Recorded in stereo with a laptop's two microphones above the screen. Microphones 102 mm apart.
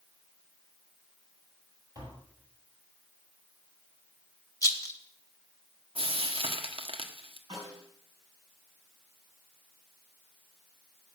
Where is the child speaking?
I don't hear a child speaking.